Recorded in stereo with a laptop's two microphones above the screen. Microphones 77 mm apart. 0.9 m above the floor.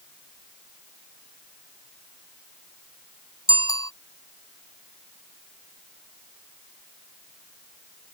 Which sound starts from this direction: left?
A bicycle bell, at 3.5 s.